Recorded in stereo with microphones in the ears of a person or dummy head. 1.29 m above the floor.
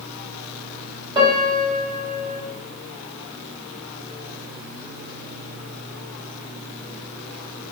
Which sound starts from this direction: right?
A piano, at 1.1 s.